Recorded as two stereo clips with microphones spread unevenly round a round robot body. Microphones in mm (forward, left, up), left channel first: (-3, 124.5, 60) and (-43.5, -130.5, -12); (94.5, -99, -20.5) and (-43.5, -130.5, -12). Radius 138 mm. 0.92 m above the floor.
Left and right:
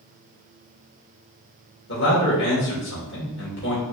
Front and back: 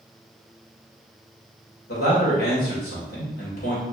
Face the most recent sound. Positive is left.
turn(degrees=30)